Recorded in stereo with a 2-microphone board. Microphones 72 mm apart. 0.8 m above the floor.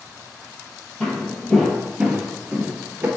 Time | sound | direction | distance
1.0 | footsteps | 10° left (ahead or behind) | 1.3 m